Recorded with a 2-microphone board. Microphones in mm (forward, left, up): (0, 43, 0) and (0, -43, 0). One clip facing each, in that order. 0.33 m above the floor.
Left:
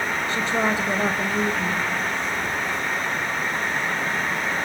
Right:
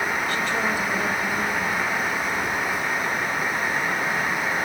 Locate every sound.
0.3 s a woman speaking: 30° left (ahead or behind), 1.4 m